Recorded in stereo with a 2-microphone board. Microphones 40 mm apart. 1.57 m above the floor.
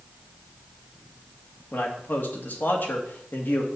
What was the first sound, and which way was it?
A man speaking, 60° left (ahead or behind).